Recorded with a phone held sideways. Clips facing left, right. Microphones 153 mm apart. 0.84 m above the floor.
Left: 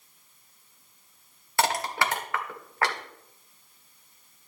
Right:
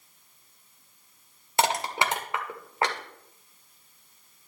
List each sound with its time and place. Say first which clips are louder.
1.6 s crushing: right 1 dB; 20° right (ahead or behind), 1.7 m